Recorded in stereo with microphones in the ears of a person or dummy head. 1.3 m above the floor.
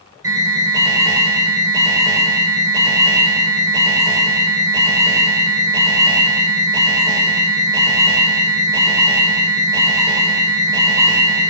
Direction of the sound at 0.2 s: 15° right (ahead or behind).